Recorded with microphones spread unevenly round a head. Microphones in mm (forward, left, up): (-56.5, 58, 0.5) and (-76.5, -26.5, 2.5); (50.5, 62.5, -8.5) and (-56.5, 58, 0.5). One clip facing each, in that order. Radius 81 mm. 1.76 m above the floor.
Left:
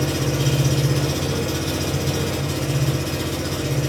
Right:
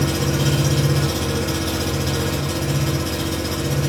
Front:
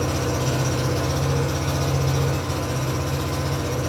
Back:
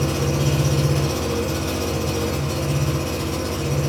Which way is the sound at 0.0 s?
110° right.